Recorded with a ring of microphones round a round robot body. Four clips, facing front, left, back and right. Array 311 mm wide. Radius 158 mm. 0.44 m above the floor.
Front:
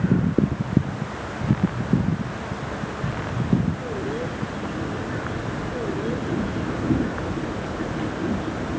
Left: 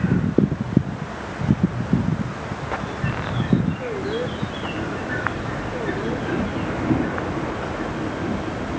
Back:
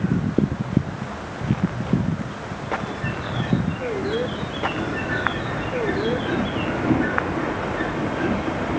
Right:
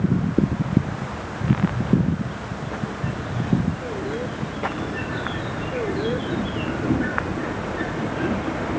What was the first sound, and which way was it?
Only background noise.